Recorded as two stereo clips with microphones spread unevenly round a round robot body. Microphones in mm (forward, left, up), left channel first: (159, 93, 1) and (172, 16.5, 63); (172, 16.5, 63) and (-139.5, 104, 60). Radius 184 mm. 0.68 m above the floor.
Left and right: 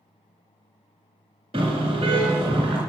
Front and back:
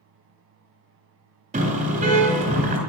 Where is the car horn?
125° right, 3 m.